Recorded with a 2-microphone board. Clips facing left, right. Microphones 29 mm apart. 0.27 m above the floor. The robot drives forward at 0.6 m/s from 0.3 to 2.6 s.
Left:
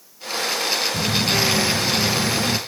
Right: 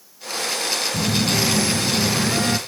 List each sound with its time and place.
0.9 s a phone buzzing: 70° right (ahead or behind), 1.0 m; by 2.6 s 45° right (ahead or behind), 1.4 m